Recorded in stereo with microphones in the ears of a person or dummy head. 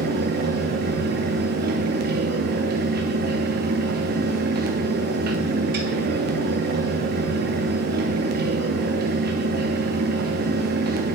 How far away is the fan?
About 0.8 m.